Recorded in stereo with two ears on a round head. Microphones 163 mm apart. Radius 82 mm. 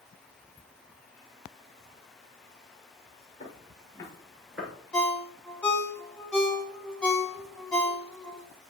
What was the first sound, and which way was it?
Footsteps, 35° left (ahead or behind).